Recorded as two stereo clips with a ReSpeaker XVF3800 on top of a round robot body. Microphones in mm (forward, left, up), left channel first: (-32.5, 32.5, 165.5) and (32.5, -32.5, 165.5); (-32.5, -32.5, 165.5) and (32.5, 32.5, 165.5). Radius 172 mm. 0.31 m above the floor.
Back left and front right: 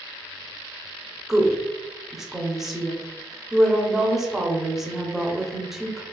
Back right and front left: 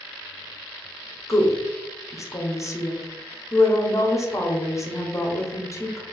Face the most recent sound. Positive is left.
turn(degrees=-130)